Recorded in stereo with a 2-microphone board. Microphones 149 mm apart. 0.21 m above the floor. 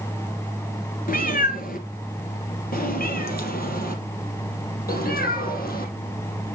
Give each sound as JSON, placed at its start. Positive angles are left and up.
{"t": 1.1, "sound": "a cat meowing", "side_deg": 70, "distance_m": 1.7}